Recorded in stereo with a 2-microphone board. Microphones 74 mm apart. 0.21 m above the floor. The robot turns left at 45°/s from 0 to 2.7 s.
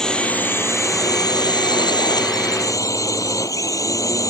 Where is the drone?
170° left; by 4.3 s 50° left.